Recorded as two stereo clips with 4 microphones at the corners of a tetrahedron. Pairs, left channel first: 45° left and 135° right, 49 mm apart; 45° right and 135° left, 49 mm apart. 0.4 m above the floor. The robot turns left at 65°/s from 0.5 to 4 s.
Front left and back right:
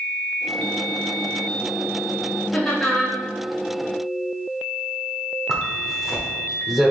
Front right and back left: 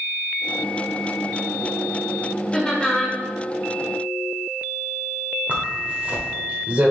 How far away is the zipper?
About 0.8 m.